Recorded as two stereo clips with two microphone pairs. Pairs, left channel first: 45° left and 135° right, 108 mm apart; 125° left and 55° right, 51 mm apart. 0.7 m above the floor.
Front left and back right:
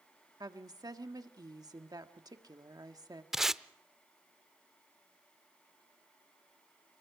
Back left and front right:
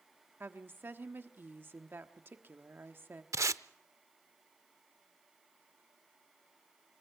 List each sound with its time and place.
0.4 s a woman speaking: 90° right, 1.3 m
3.3 s tape being pulled: 50° right, 0.5 m